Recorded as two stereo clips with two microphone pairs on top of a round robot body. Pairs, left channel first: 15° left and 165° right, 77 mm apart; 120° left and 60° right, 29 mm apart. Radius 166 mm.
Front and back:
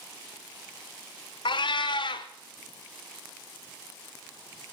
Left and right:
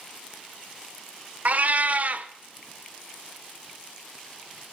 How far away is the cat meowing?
About 0.5 m.